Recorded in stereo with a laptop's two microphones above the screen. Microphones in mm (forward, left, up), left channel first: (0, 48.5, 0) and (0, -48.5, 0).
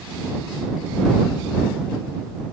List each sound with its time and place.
Only background noise.